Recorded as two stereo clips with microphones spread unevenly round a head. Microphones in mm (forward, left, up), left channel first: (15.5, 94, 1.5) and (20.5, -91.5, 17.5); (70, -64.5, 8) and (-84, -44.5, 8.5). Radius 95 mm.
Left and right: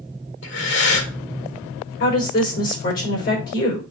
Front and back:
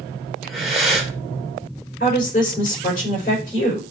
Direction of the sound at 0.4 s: 85° left.